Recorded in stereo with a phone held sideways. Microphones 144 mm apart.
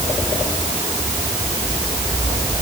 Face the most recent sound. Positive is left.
No sound to turn to.